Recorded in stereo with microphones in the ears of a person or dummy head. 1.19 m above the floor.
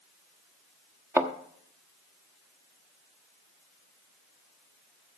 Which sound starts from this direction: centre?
A thud, at 1.2 s.